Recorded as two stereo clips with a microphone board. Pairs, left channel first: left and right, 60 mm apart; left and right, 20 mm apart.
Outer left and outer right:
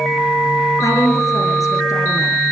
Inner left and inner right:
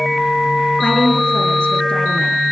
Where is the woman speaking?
70° left (ahead or behind), 5.5 m.